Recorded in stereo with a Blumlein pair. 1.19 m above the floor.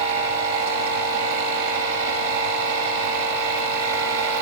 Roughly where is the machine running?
Ahead right.